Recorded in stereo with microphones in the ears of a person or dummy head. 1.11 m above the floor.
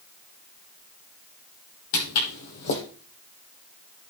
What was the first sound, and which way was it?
Footsteps, 50° left (ahead or behind).